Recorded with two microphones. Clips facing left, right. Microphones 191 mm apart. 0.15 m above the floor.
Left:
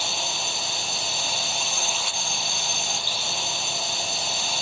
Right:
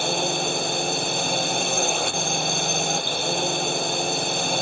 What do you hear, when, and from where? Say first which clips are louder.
0.0 s a drone: right 9 dB; 55° right (ahead or behind)